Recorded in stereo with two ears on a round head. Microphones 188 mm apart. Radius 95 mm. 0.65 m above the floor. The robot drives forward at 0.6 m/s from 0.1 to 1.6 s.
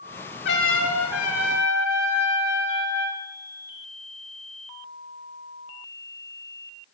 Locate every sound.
0.5 s a trumpet: 50° left (ahead or behind), 1.2 m; by 3.2 s 85° left, 0.9 m